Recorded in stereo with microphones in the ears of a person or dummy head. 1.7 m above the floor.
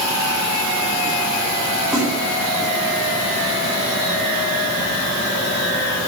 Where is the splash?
Centre (ahead or behind), 2.0 m.